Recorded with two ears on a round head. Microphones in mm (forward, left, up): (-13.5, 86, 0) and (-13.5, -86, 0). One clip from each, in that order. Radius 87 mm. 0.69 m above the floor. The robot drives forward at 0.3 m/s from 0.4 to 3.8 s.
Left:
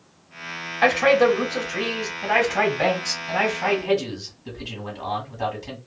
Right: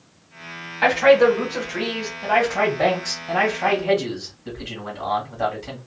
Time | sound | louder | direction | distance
0.8 | a man speaking | right 2 dB | 10° left (ahead or behind) | 1.0 m